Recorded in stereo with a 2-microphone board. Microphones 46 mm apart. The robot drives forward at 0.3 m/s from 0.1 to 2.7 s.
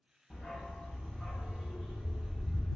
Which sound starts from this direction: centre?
A dog barking, at 0.3 s.